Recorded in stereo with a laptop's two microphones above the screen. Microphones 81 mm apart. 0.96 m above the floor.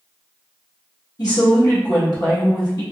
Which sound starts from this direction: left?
A woman speaking, at 1.2 s.